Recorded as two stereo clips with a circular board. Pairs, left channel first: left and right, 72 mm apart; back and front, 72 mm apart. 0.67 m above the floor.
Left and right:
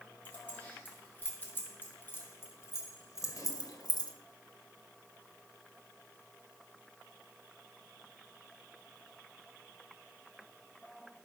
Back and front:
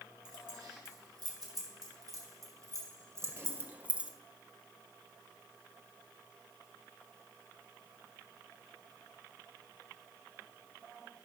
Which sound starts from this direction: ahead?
Keys jangling, at 0.2 s.